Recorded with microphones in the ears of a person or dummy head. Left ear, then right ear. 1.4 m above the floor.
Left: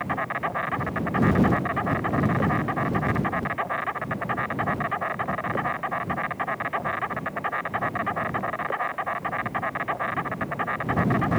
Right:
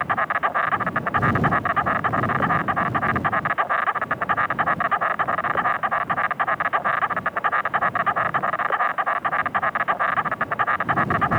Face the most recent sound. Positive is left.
turn(degrees=-40)  # may be behind; listen again after turning